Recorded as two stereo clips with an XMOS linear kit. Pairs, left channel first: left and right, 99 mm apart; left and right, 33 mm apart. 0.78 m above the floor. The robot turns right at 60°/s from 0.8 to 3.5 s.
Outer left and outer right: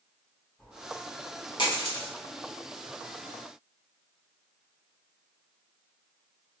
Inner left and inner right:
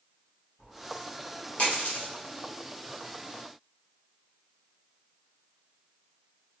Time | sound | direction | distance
0.6 | a dropped coin | 10° left (ahead or behind) | 1.4 m